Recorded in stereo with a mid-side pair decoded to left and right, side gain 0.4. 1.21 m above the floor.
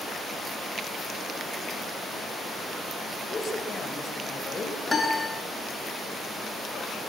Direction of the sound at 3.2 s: 40° left.